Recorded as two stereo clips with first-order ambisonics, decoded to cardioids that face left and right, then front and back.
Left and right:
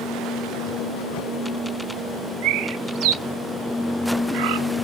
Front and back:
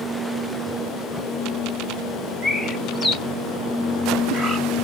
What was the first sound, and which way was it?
A bird, 85° right.